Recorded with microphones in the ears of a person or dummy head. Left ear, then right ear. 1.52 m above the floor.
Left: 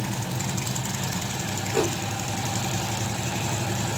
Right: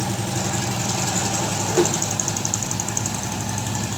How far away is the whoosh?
About 2.5 m.